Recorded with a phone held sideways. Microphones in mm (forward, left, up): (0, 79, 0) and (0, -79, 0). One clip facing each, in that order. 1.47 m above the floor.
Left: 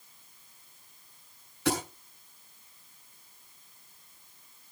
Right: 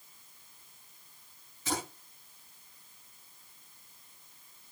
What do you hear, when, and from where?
1.6 s a thud: 80° left, 6.5 m